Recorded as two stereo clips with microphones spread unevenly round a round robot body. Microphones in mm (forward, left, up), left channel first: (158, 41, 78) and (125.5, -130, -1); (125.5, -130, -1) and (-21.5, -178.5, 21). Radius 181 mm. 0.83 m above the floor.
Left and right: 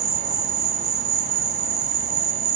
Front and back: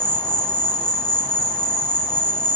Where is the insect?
65° right, 1.1 m.